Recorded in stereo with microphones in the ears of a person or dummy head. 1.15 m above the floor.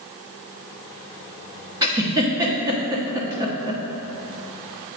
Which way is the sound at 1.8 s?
20° right (ahead or behind).